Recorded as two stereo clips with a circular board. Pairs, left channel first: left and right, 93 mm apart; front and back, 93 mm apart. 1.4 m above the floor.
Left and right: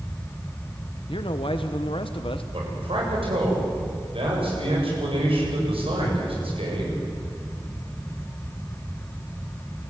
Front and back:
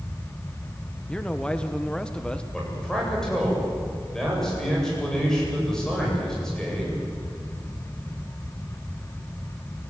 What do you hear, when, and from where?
1.1 s a man speaking: 80° left, 1.1 m
2.5 s a man speaking: 85° right, 8 m